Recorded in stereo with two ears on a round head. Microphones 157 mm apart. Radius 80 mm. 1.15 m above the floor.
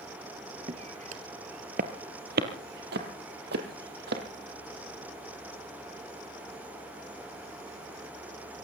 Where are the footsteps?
35° right (ahead or behind), 1.5 m; by 4.2 s 65° right (ahead or behind), 3 m.